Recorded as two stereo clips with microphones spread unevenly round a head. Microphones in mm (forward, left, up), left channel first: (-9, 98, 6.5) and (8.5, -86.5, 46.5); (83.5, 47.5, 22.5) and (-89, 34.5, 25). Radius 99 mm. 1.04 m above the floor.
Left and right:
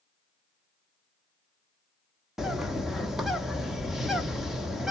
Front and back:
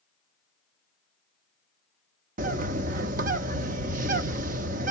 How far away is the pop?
No pop in this recording.